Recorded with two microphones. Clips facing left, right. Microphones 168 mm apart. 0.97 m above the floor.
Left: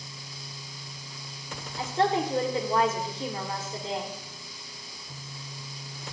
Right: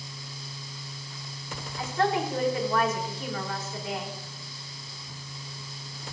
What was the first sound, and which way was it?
A woman speaking, 30° left (ahead or behind).